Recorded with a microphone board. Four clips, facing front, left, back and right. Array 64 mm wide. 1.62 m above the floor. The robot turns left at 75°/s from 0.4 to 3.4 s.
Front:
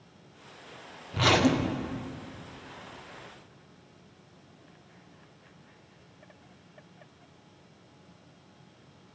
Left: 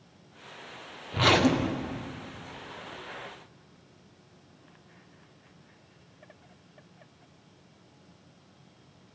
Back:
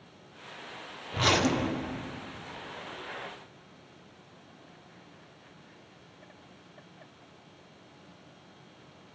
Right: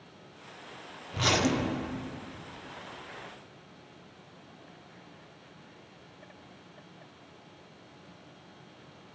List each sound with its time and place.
1.1 s a zipper: 85° left, 0.5 m; by 2.1 s 15° left, 0.5 m